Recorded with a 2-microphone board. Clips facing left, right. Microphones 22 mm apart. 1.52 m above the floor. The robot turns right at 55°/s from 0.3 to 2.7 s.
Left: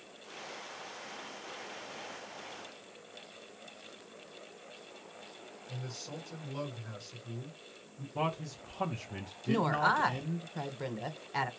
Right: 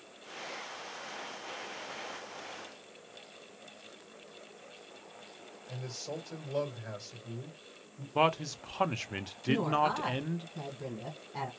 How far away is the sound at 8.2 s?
About 0.5 m.